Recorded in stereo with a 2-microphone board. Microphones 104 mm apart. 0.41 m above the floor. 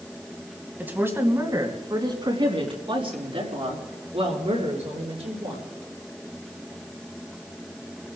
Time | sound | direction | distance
0.8 | a woman speaking | 15° right (ahead or behind) | 3 m